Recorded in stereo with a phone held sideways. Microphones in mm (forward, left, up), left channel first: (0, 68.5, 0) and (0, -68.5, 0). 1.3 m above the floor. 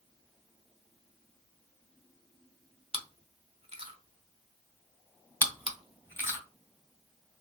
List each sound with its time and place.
2.9 s chewing: 45° right (ahead or behind), 0.8 m
5.4 s chewing: 15° left (ahead or behind), 2 m